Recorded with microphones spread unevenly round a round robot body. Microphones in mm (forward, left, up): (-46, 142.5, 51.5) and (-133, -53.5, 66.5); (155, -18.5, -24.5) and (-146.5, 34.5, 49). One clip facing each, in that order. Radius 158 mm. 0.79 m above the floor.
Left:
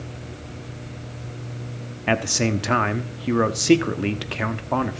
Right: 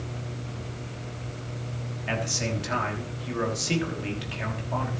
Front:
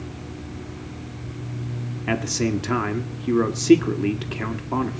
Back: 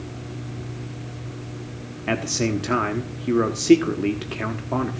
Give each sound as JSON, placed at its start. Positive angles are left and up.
{"t": 2.1, "sound": "a man speaking", "azimuth_deg": 70, "distance_m": 1.3}